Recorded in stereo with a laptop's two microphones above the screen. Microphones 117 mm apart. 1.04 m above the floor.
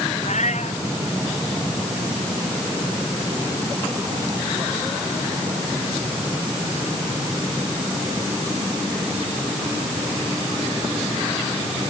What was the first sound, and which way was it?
A cat meowing, 80° left.